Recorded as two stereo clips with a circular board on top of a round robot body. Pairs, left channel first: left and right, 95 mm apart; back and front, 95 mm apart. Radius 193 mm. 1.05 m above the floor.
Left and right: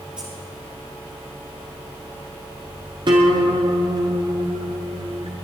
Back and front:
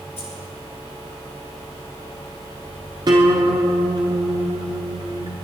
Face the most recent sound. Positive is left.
turn(degrees=-50)